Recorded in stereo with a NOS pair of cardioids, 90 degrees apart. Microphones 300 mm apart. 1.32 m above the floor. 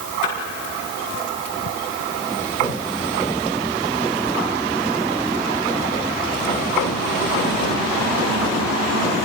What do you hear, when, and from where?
0.2 s a splash: 50° left, 9 m